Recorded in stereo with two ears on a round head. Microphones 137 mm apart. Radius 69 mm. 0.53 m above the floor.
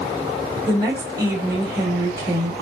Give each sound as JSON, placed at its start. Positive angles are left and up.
{"t": 0.7, "sound": "a woman speaking", "side_deg": -15, "distance_m": 1.4}